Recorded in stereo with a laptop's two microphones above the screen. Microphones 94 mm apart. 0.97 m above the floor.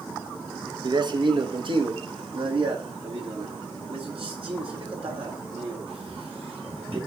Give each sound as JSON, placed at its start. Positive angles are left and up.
{"t": 0.8, "sound": "a man speaking", "side_deg": -50, "distance_m": 1.0}